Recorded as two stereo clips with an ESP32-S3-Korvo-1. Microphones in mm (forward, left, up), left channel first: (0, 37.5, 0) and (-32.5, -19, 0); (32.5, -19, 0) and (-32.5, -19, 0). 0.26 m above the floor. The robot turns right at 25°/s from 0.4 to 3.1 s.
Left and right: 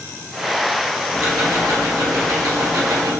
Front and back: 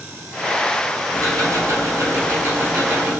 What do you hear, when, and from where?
1.1 s ticking: 165° right, 1.6 m; by 3.2 s 115° right, 1.6 m